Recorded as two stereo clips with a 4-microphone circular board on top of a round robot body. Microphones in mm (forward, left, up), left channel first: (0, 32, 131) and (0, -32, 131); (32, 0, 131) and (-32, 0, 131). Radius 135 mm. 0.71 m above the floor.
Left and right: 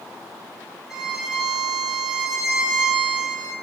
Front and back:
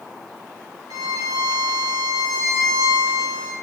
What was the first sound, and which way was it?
A violin, 175° right.